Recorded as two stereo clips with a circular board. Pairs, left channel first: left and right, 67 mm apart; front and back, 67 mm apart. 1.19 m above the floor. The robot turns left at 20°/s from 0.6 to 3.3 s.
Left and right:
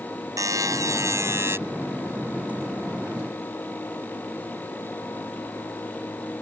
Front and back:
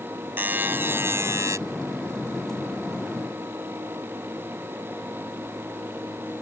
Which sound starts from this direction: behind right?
A buzzer, at 0.4 s.